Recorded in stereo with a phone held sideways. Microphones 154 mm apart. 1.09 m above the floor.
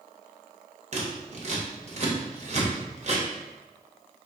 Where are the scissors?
45° right (ahead or behind), 0.7 m.